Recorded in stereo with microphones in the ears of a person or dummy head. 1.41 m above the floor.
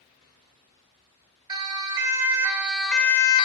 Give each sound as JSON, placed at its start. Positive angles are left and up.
{"t": 1.5, "sound": "a siren", "side_deg": -25, "distance_m": 3.0}